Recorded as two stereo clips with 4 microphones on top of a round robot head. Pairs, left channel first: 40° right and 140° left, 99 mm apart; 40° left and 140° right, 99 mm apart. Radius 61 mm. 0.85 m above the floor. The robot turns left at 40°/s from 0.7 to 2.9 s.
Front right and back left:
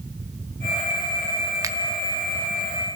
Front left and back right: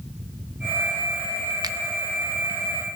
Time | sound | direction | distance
1.6 | a finger snap | 175° right | 0.9 m